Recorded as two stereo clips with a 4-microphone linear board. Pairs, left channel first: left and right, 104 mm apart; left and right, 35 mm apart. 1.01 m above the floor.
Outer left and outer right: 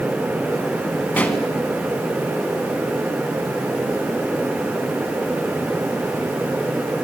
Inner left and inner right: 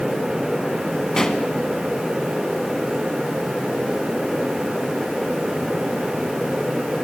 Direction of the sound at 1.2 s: 15° left (ahead or behind).